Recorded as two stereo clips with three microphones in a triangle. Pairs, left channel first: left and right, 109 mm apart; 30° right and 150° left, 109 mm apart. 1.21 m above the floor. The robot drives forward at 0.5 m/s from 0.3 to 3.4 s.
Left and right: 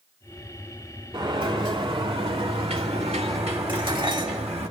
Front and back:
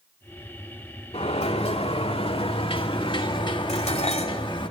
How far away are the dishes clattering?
About 2.5 m.